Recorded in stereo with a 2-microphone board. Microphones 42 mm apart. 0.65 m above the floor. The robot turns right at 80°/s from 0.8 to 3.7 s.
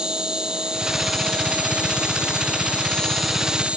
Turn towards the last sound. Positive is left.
turn(degrees=-145)